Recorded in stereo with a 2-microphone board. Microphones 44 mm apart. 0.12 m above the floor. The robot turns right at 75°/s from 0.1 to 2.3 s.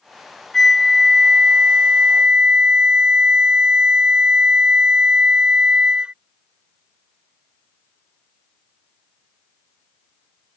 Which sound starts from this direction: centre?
A flute, at 0.5 s.